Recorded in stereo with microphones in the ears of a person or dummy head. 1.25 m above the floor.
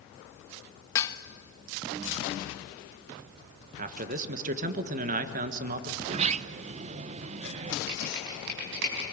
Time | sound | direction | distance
0.9 | dishes clattering | 20° left (ahead or behind) | 0.8 m
3.8 | a man speaking | 40° right (ahead or behind) | 1.5 m
6.0 | a sliding door | 35° right (ahead or behind) | 0.5 m
7.9 | typing on a keyboard | 70° right (ahead or behind) | 4.5 m